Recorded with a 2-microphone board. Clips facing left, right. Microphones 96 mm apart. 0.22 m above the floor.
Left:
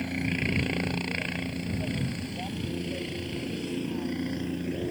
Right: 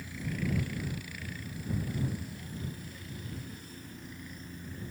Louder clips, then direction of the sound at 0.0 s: Left 7 dB; 70° left (ahead or behind).